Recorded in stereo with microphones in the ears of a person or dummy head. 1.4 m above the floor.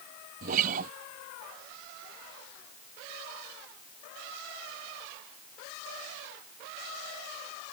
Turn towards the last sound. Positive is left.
turn(degrees=-45)  # may be behind; listen again after turning